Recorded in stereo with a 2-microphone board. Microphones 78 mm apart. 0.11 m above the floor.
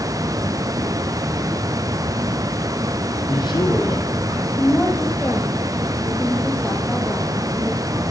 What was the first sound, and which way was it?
A man speaking, 70° left (ahead or behind).